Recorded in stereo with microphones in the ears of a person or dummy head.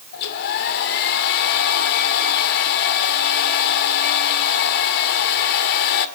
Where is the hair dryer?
45° left (ahead or behind), 2 m.